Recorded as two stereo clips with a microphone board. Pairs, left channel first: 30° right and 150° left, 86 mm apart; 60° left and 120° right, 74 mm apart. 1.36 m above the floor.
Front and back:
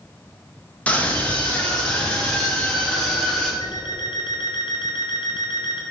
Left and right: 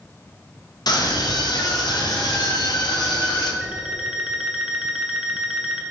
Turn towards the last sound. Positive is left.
turn(degrees=-40)